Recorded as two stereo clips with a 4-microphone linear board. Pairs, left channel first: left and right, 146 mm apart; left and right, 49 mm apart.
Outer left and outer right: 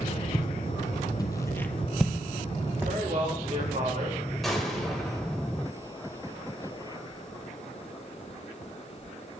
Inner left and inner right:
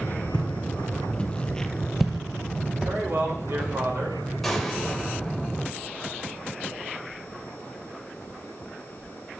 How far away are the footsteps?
About 1.5 m.